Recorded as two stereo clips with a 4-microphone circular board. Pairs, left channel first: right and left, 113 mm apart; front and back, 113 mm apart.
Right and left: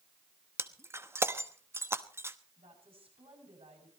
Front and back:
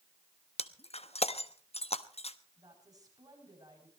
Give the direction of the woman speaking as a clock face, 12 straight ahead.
8 o'clock.